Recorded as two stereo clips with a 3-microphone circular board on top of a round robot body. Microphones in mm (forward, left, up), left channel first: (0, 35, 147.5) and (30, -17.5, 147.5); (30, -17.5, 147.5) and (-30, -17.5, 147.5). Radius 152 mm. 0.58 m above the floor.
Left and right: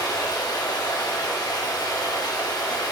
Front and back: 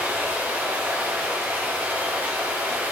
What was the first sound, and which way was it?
Running water, 110° left.